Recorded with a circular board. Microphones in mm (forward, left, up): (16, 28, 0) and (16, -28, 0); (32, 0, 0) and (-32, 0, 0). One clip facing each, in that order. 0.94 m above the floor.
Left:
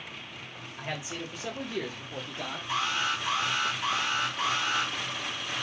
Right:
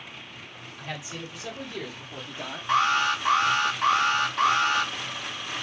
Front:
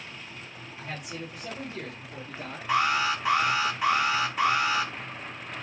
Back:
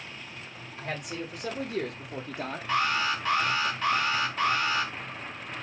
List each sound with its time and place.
0.8 s a man speaking: 145° left, 1.6 m; by 2.6 s 165° right, 0.6 m
2.7 s an alarm: 75° right, 0.9 m